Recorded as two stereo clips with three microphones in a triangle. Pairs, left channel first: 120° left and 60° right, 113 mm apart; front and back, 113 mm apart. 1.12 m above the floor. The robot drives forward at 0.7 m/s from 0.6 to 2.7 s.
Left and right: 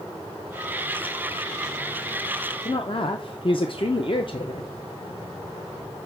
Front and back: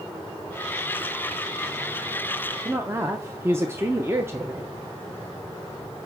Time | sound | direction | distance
2.6 | a woman speaking | 115° left | 0.6 m